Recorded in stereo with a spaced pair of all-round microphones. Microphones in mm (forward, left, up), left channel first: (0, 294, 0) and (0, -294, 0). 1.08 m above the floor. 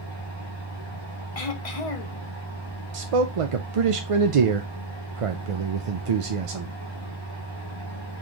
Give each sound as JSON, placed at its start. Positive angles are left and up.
{"t": 0.0, "sound": "a fan", "side_deg": -50, "distance_m": 2.5}
{"t": 1.4, "sound": "throat clearing", "side_deg": 75, "distance_m": 0.8}
{"t": 2.9, "sound": "a man speaking", "side_deg": -65, "distance_m": 0.6}